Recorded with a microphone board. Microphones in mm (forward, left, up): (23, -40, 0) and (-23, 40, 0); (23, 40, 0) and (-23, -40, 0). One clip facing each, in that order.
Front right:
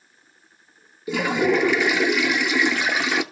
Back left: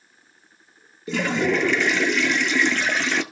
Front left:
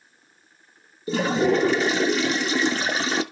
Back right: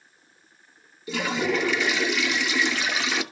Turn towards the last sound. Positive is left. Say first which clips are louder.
# front right 2 dB, front left 5 dB
turn(degrees=20)